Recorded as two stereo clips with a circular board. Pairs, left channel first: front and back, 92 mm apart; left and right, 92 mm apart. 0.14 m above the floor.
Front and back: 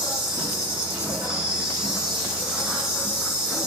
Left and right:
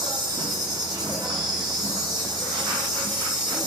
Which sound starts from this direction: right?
An insect, at 0.0 s.